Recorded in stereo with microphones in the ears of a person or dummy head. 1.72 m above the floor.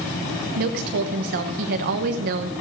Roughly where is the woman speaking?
Right.